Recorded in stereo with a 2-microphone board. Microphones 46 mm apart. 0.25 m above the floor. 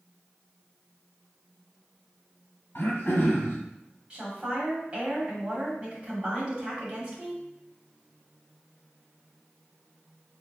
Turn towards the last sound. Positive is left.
turn(degrees=-20)  # may be behind; listen again after turning